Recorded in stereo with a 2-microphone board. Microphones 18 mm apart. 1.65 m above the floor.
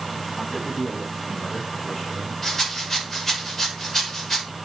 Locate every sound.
0.4 s a man speaking: 10° left (ahead or behind), 8.5 m
2.4 s a rattle: 15° left (ahead or behind), 6 m